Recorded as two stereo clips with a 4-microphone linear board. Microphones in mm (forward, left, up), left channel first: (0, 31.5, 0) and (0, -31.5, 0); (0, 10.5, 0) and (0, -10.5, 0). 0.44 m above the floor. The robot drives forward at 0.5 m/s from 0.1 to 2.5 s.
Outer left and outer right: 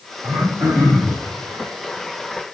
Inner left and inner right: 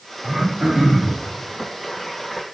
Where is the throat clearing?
60° right (ahead or behind), 5 m.